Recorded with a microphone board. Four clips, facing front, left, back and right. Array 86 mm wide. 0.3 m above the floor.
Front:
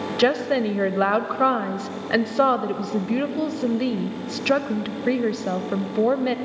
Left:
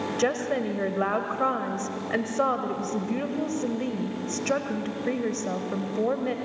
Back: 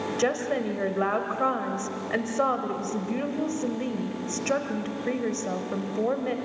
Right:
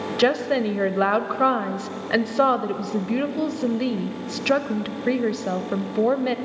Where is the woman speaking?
45° right, 1.0 m.